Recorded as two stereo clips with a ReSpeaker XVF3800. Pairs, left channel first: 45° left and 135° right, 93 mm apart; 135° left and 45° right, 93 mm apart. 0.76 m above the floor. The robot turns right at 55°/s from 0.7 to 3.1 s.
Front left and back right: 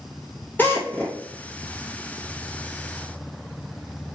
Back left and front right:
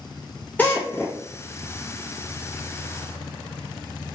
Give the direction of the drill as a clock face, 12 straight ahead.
9 o'clock.